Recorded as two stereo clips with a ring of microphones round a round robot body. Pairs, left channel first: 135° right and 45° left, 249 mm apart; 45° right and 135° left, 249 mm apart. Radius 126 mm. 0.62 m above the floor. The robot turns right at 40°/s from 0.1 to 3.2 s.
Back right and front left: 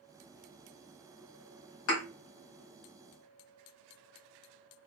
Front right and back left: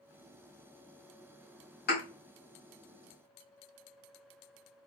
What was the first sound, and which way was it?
A thud, 95° right.